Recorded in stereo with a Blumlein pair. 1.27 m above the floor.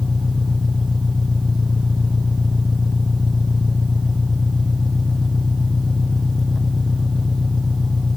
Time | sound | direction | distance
0.0 | an engine running | 10° left | ?